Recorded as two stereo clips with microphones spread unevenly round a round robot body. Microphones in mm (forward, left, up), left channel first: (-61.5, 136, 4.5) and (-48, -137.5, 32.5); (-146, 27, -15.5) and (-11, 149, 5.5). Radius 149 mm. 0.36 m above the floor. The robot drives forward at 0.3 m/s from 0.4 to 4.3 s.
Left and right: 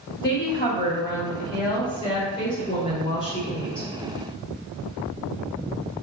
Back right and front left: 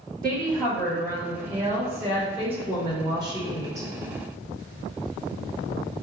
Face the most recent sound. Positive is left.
turn(degrees=120)